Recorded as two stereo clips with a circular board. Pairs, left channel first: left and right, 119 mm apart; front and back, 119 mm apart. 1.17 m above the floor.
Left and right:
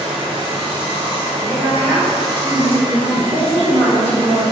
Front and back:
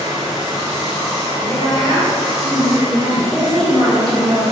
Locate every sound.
0.0 s running water: 50° right, 0.9 m
1.4 s a woman speaking: 175° left, 0.7 m
3.3 s a woman speaking: 120° right, 1.6 m